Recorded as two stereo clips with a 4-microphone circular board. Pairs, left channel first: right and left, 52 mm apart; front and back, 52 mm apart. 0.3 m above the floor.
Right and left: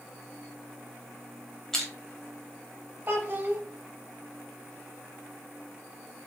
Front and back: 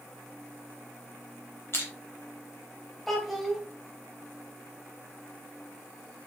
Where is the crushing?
10° right, 0.8 m.